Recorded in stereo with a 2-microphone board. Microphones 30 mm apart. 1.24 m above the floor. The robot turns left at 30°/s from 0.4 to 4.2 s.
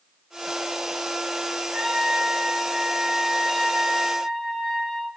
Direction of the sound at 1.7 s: 105° right.